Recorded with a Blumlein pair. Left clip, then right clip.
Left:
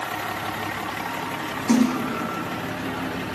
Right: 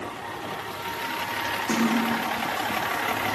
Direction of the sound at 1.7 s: 15° left.